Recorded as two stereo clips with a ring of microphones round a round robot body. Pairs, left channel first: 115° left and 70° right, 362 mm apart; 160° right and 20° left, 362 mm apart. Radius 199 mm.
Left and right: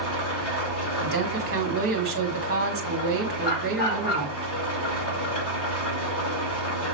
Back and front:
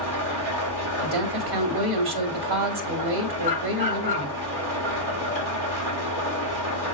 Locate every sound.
0.0 s an engine running: 60° left, 4 m
1.0 s a woman speaking: 5° right, 3 m
3.4 s a dog barking: 90° left, 6 m